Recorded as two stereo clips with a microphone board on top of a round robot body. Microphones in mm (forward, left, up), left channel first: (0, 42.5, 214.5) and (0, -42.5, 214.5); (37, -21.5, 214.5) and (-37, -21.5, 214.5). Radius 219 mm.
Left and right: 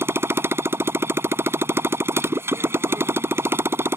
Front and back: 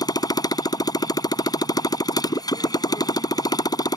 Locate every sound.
0.0 s a motorcycle: 30° right